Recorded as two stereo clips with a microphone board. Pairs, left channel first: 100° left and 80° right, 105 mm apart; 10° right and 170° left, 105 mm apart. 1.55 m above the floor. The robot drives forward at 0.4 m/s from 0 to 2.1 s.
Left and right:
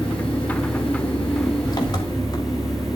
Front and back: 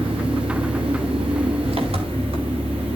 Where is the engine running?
145° left, 3.5 m; by 3.0 s 150° left, 4.5 m.